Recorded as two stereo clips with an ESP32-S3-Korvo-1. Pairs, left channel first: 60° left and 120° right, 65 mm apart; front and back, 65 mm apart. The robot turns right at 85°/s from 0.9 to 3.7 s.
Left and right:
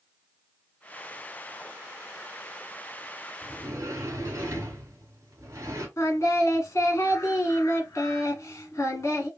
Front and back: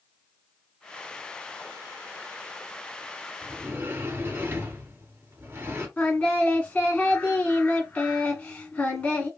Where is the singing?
60° left, 1.2 m.